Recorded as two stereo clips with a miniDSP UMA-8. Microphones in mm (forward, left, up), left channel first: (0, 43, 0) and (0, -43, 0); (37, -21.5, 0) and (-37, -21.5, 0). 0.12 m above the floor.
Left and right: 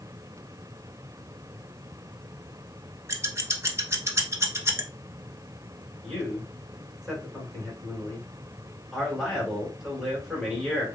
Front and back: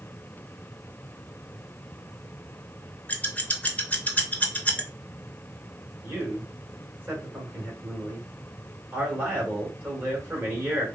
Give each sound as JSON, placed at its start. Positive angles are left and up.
{"t": 3.1, "sound": "scissors", "azimuth_deg": -55, "distance_m": 0.6}
{"t": 6.0, "sound": "a man speaking", "azimuth_deg": -170, "distance_m": 1.7}